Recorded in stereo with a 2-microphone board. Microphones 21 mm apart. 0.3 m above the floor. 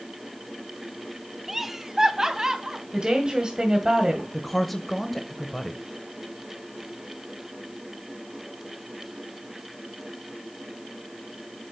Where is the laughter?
10° right (ahead or behind), 0.9 m; by 2.8 s 30° right (ahead or behind), 2 m.